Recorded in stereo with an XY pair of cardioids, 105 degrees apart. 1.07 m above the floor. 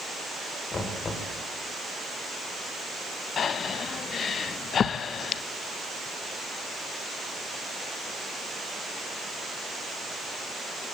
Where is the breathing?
55° left, 0.9 m.